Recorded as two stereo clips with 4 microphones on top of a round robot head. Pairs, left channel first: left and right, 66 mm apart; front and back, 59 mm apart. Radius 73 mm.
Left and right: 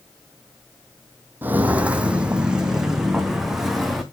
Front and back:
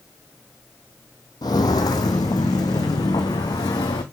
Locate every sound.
1.4 s footsteps: 30° right, 1.0 m; by 4.0 s straight ahead, 2 m